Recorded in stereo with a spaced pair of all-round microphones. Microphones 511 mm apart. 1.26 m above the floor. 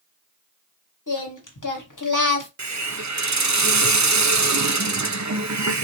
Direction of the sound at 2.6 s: 35° right (ahead or behind).